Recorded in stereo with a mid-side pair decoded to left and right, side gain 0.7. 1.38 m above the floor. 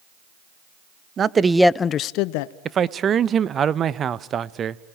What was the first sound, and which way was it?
A man speaking, 35° right.